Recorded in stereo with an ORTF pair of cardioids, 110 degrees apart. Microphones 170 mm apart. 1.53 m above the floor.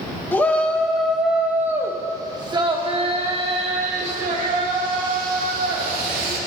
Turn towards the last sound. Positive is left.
turn(degrees=-60)